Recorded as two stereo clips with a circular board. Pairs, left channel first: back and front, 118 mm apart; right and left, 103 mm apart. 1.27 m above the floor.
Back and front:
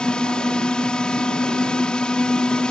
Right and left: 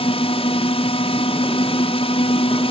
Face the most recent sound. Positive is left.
turn(degrees=-100)